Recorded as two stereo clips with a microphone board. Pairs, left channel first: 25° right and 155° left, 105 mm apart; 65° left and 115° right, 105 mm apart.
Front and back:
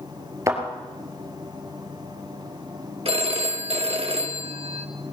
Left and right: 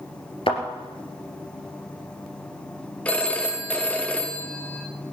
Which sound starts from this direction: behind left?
A phone ringing, at 3.0 s.